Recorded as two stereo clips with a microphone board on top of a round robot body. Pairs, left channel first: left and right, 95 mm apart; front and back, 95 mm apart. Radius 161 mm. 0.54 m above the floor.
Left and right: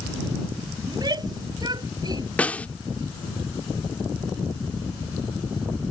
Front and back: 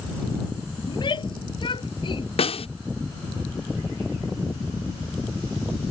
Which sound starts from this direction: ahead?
A snare drum, at 2.4 s.